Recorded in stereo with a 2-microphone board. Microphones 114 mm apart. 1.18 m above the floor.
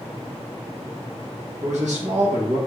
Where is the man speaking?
85° right, 1.0 m.